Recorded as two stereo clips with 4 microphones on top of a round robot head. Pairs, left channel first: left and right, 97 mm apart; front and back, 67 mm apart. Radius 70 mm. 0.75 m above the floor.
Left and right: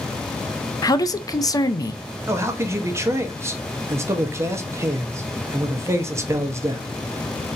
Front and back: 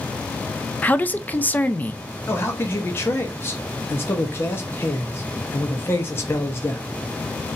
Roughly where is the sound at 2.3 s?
Ahead right.